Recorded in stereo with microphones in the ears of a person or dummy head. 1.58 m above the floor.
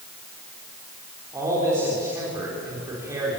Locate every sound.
1.3 s a man speaking: 20° right (ahead or behind), 5 m